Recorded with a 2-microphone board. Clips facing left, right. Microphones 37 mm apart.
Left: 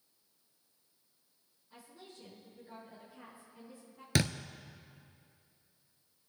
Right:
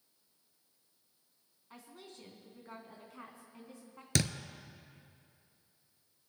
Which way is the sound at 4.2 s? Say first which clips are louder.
Left 2 dB; 15° left (ahead or behind).